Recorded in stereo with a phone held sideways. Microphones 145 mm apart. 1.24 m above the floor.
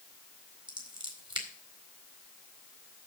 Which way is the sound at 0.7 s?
30° right (ahead or behind).